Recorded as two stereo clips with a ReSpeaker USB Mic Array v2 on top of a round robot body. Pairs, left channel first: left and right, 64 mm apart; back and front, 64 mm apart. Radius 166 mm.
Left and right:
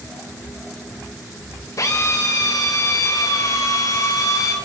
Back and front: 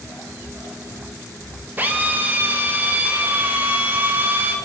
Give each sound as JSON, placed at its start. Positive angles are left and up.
{"t": 1.8, "sound": "a drill", "azimuth_deg": 60, "distance_m": 3.0}